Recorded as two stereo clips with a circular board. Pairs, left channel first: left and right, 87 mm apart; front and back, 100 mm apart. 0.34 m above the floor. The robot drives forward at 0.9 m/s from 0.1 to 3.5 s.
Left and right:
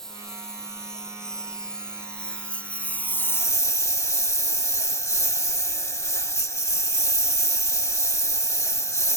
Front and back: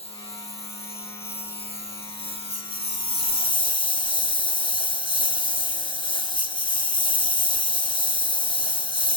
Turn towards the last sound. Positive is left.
turn(degrees=35)